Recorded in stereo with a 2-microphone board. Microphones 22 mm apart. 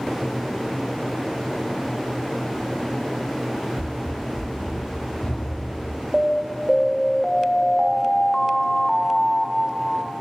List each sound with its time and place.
3.8 s running footsteps: 65° left (ahead or behind), 0.8 m; by 6.0 s 55° left (ahead or behind), 3.5 m
6.1 s an alarm: 10° left (ahead or behind), 0.6 m